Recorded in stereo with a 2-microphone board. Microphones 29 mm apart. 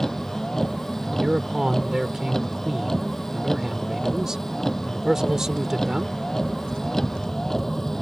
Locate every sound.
0.0 s a vehicle: 15° left (ahead or behind)
1.0 s a man speaking: 20° right (ahead or behind)